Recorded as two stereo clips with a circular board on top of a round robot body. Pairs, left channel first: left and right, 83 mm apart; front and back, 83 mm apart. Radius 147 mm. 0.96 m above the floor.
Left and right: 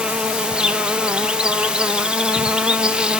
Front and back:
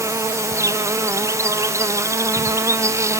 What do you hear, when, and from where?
0.0 s an insect: 160° right, 1.2 m